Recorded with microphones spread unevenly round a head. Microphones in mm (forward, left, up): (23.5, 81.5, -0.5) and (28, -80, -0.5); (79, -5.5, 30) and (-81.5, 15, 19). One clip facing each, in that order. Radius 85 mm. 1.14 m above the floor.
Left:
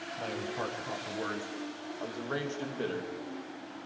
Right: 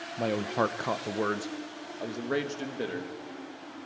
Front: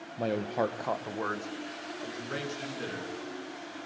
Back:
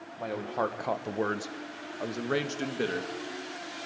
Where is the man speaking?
60° right, 0.7 m; by 3.1 s 165° right, 1.7 m.